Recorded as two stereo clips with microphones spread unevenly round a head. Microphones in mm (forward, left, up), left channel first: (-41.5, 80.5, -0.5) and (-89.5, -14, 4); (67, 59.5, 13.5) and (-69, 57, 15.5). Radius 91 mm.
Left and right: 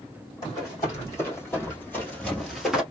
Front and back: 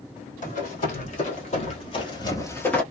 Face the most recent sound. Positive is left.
turn(degrees=-55)